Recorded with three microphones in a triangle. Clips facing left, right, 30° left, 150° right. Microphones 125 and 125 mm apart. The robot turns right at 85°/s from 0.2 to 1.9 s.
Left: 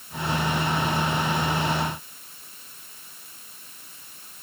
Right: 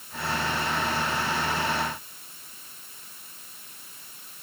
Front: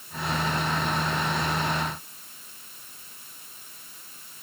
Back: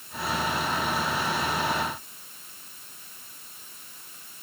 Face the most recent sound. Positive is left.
No sound to turn to.